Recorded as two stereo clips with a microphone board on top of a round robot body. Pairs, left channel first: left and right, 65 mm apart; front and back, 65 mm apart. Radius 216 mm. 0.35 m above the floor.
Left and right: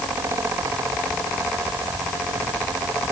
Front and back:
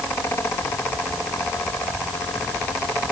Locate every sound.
Only background noise.